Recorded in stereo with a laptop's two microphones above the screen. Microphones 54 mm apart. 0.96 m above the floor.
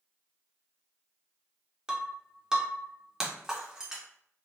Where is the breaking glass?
10° right (ahead or behind), 0.7 m.